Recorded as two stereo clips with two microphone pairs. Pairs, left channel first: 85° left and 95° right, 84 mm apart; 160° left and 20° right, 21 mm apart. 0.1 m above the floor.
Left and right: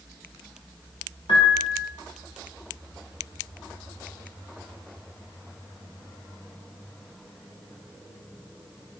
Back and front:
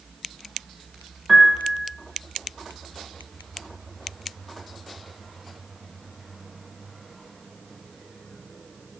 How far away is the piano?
About 4 m.